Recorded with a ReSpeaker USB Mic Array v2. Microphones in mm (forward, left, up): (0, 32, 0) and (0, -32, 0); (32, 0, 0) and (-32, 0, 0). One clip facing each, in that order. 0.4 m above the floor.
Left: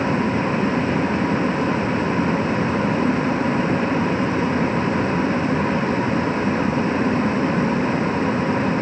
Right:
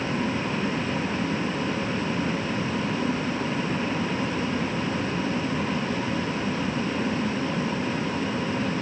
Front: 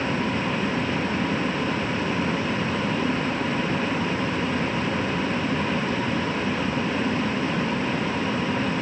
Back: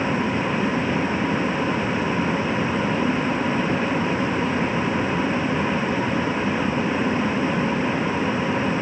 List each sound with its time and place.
Only background noise.